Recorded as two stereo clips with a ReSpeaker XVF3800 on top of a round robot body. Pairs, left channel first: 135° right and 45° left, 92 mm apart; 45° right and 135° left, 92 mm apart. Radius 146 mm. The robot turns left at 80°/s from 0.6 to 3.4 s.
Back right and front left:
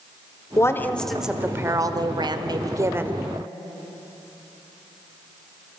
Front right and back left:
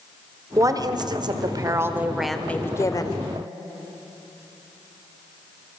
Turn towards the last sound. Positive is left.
turn(degrees=-45)